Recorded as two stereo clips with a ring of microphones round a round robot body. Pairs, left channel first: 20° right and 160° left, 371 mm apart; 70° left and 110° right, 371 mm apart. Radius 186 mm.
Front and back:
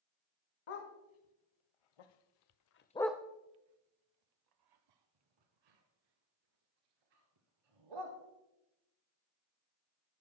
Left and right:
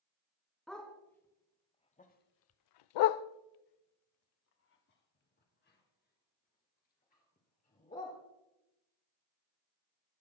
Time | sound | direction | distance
0.7 | a dog barking | 20° right | 1.8 m